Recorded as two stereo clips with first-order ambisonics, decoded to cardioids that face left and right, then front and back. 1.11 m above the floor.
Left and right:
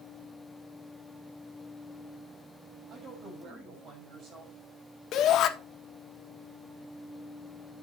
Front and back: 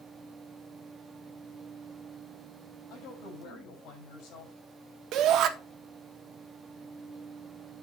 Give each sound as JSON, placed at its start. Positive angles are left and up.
{"t": 2.9, "sound": "a woman speaking", "azimuth_deg": -40, "distance_m": 6.0}
{"t": 5.1, "sound": "a shout", "azimuth_deg": 140, "distance_m": 1.5}